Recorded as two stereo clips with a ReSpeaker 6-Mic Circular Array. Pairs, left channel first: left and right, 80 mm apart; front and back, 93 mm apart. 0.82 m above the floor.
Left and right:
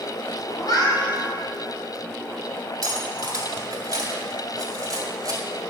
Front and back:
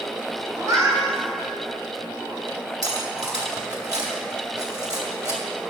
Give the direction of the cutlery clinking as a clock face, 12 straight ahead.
4 o'clock.